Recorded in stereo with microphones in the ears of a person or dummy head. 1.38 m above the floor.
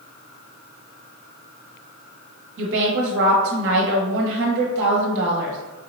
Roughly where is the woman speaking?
Right.